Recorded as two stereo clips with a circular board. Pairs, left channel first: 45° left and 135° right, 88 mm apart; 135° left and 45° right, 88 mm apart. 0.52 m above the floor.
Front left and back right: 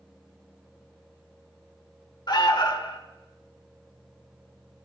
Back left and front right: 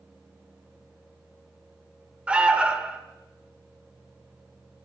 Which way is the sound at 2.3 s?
30° left.